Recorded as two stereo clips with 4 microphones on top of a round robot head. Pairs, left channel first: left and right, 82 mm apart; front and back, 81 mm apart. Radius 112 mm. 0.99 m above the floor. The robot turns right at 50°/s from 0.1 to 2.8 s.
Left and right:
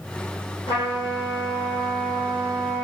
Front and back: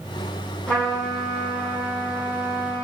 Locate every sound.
0.7 s a trumpet: 70° left, 0.8 m; by 2.9 s 175° left, 0.8 m